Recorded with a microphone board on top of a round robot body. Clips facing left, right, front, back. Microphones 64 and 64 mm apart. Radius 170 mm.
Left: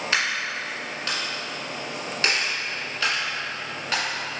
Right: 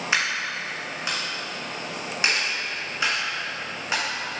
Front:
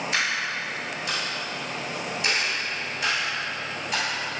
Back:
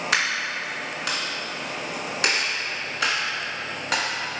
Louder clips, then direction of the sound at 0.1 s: Right 1 dB, back 2 dB; 160° right.